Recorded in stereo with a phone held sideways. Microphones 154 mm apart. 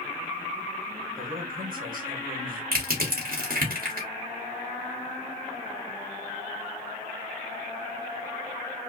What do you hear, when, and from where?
1.2 s a man speaking: 60° right (ahead or behind), 2.0 m
2.7 s crushing: 65° right (ahead or behind), 2.0 m